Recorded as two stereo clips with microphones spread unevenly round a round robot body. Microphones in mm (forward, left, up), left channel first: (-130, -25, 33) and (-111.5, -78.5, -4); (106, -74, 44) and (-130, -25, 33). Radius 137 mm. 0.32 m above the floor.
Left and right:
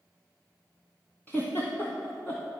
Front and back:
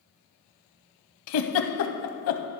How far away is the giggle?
About 0.6 m.